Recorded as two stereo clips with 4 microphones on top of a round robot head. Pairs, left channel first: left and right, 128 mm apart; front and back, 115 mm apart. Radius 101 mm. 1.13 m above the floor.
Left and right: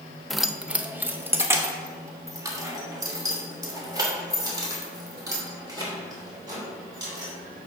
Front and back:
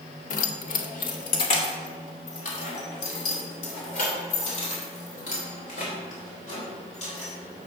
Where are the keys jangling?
Straight ahead, 0.6 m; by 7.3 s 30° right, 4.5 m.